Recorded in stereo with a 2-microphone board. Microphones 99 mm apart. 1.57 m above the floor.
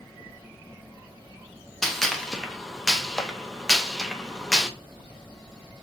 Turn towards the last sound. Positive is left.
turn(degrees=5)  # may be behind; listen again after turning